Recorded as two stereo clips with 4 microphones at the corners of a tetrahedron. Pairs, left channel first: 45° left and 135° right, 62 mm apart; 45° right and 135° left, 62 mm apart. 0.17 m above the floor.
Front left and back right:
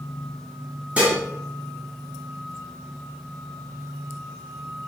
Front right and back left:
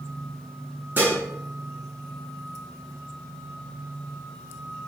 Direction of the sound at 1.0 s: 165° left.